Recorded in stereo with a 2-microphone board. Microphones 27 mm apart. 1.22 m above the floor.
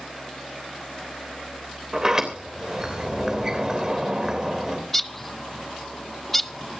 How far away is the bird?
About 0.5 m.